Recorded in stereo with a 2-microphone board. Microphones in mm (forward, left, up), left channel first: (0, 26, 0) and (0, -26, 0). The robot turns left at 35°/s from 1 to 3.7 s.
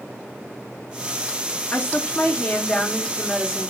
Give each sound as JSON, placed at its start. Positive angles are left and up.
{"t": 1.7, "sound": "a woman speaking", "azimuth_deg": 70, "distance_m": 0.6}